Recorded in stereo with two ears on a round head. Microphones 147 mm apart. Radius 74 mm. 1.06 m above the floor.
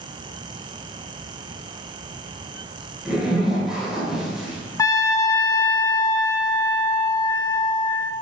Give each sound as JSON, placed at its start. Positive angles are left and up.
{"t": 3.0, "sound": "a zipper", "side_deg": -5, "distance_m": 4.0}
{"t": 4.8, "sound": "a trumpet", "side_deg": 20, "distance_m": 0.6}